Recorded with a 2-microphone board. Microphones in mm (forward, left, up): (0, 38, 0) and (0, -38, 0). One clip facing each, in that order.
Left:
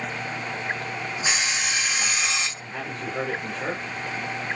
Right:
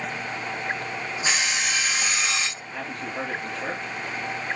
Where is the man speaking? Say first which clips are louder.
Left 1 dB; 25° left (ahead or behind), 2 m.